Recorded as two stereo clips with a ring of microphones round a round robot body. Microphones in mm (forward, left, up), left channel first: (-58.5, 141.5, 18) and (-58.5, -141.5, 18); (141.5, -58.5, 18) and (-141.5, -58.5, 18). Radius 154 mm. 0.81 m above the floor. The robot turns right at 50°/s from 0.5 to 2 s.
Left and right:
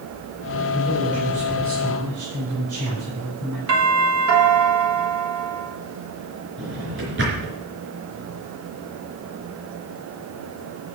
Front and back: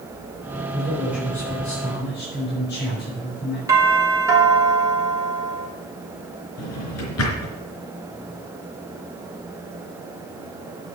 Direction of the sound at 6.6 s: 35° right.